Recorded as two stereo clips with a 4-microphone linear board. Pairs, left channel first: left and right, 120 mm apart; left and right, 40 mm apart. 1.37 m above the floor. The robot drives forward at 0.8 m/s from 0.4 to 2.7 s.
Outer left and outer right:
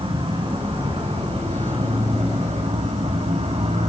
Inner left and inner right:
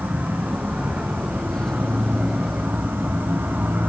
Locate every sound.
0.0 s an insect: 55° right (ahead or behind), 4.5 m; by 3.9 s 75° right (ahead or behind), 3.5 m